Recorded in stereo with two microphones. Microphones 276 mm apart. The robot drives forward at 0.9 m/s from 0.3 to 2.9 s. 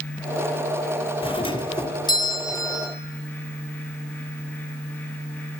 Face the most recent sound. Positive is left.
turn(degrees=10)  # may be behind; listen again after turning